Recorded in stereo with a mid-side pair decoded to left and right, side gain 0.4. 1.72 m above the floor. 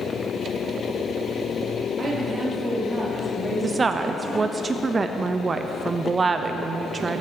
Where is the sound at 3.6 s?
40° right, 0.6 m.